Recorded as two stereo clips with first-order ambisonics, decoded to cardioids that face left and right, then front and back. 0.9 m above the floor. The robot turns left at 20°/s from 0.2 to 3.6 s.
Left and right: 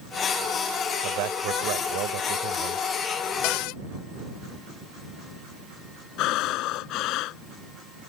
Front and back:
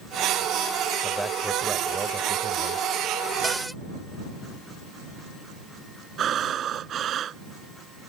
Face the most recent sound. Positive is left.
turn(degrees=120)